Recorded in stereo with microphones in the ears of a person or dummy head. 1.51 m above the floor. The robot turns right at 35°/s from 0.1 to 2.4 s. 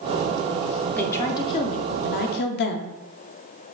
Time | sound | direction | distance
0.9 | a woman speaking | 15° left | 0.5 m